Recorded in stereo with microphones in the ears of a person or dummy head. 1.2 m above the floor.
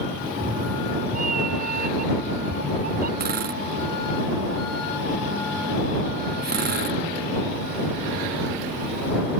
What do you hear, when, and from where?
0.2 s a cat meowing: 45° right (ahead or behind)
3.2 s a drill: 55° right (ahead or behind)